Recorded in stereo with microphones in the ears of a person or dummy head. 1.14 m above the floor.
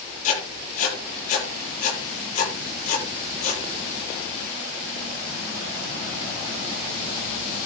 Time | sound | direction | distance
0.2 | writing | 40° left (ahead or behind) | 8.5 m